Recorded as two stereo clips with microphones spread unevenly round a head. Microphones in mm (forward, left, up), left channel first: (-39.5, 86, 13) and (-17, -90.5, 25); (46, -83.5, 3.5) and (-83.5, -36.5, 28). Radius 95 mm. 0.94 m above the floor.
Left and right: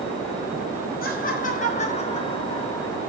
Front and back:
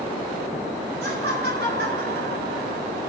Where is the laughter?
135° left, 5 m; by 3.0 s 175° left, 4 m.